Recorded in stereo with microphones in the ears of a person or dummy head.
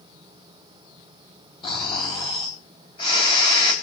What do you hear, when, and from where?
1.6 s snoring: 30° left (ahead or behind), 3.5 m